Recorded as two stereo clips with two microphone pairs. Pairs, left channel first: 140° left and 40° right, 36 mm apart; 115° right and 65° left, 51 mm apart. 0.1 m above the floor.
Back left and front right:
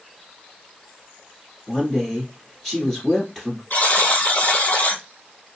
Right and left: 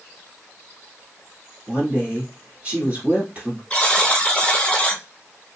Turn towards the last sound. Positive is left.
turn(degrees=175)